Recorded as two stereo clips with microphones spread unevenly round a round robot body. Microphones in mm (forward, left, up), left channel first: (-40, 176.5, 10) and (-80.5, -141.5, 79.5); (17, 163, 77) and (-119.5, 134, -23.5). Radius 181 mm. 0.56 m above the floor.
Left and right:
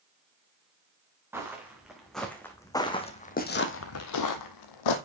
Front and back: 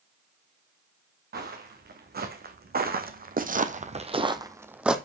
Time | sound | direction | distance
1.3 | footsteps | straight behind | 3 m